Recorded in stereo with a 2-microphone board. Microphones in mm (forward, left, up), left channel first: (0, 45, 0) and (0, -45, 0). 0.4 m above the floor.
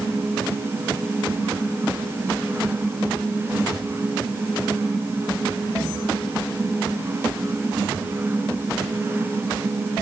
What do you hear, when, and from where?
Only background noise.